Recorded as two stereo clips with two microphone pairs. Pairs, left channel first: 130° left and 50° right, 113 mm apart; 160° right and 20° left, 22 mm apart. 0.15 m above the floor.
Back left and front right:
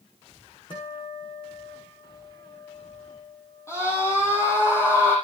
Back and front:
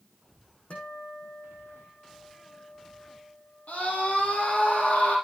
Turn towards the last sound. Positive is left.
turn(degrees=-165)